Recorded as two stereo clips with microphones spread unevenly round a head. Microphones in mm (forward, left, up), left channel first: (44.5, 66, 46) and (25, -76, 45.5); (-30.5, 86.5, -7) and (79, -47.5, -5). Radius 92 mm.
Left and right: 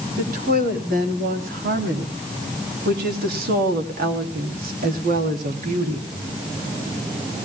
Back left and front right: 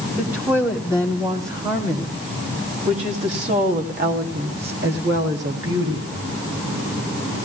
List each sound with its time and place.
0.2 s a woman speaking: 135° right, 4.5 m; by 6.1 s 75° right, 3.5 m